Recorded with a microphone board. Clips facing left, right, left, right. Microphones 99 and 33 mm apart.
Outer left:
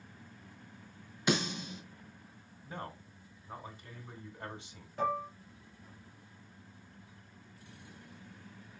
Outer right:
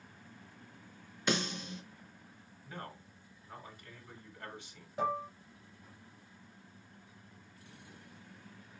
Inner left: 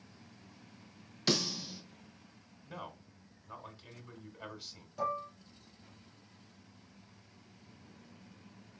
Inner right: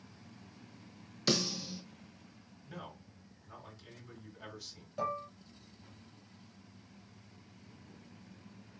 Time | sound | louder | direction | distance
1.3 | a snare drum | outer left 2 dB, even | 10° left (ahead or behind) | 2 m
2.6 | a man speaking | outer left 3 dB, inner left 2 dB | 25° left (ahead or behind) | 1.5 m
5.0 | dishes clattering | outer left 1 dB, inner left 1 dB | 15° right (ahead or behind) | 3 m